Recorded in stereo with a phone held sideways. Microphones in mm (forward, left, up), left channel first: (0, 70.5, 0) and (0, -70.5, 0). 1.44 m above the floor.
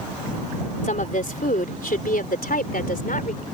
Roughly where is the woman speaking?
Left.